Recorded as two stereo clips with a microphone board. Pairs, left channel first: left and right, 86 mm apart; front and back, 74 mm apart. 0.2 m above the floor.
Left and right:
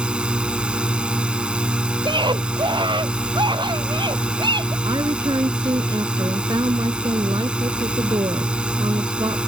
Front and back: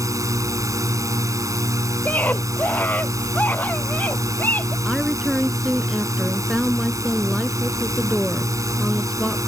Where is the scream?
65° right.